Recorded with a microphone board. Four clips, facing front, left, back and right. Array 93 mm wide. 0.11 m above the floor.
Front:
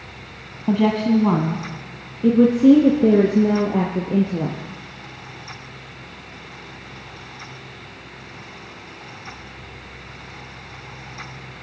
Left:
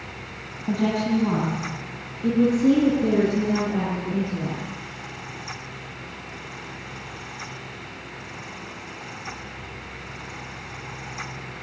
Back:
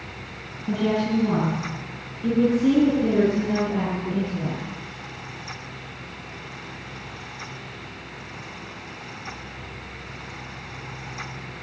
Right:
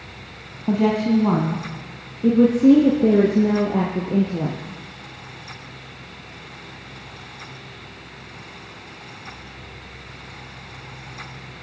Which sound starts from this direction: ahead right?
A woman speaking, at 0.7 s.